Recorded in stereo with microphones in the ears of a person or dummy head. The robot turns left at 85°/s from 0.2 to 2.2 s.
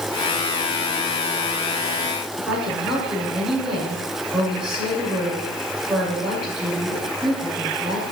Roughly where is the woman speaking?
Centre.